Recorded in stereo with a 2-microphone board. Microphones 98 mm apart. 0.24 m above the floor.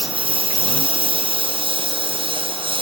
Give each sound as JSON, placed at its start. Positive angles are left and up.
{"t": 0.0, "sound": "a lawn mower", "side_deg": -60}